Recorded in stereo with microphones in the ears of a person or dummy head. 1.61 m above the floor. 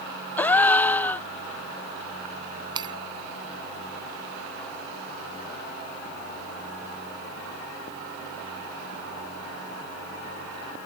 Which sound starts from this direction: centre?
A gasp, at 0.4 s.